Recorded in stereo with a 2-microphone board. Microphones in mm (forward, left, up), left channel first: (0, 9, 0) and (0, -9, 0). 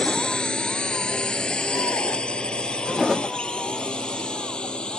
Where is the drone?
65° left (ahead or behind); by 5.0 s 60° left (ahead or behind).